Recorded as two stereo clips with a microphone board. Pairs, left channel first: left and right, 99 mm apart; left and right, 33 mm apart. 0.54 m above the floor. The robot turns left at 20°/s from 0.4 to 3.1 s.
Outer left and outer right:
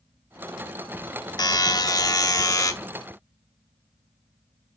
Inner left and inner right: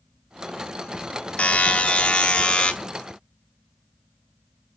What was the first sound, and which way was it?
A buzzer, 45° left (ahead or behind).